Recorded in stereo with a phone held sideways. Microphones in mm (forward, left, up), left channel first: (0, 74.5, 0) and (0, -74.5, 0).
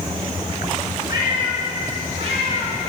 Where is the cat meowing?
30° right (ahead or behind), 3 m; by 2.8 s 55° right (ahead or behind), 3 m.